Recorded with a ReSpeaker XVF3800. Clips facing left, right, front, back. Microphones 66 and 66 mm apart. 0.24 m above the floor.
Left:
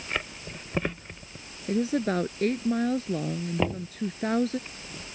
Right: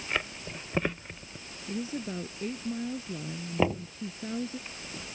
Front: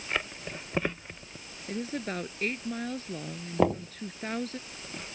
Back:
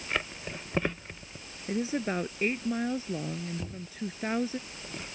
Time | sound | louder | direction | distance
1.7 | a woman speaking | left 9 dB, back 4 dB | 100° left | ?
3.6 | knocking | right 3 dB, front 15 dB | 5° right | ?